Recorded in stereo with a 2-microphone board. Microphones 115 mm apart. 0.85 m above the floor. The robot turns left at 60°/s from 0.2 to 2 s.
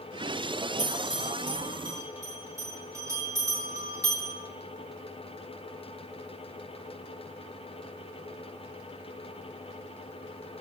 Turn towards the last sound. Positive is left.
turn(degrees=-25)  # may be behind; listen again after turning